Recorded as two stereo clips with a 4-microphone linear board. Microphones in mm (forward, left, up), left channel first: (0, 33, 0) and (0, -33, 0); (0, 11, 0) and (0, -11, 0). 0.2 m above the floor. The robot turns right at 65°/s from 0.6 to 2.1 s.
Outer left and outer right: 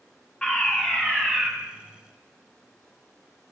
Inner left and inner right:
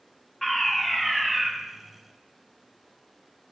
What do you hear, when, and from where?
0.4 s a fire alarm: 15° left (ahead or behind), 1.9 m; by 1.5 s centre (ahead or behind), 1.9 m